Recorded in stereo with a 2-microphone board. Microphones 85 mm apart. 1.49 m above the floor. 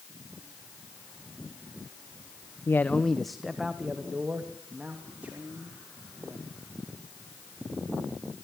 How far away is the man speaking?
About 0.6 m.